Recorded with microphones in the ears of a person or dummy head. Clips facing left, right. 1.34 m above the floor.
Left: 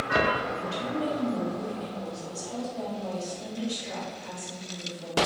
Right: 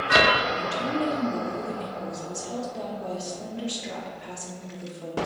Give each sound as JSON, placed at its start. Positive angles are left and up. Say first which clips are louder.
{"t": 0.6, "sound": "a woman speaking", "louder": "right 3 dB", "side_deg": -65, "distance_m": 1.1}